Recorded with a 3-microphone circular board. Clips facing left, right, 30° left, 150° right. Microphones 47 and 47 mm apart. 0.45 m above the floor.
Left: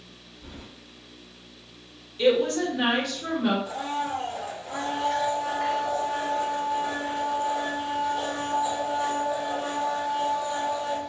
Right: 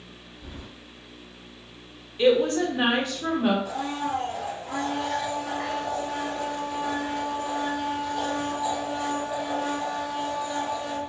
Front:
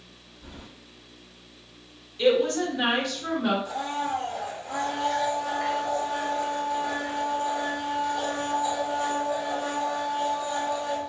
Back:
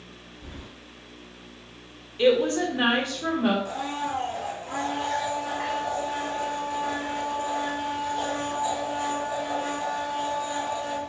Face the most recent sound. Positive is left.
turn(degrees=-100)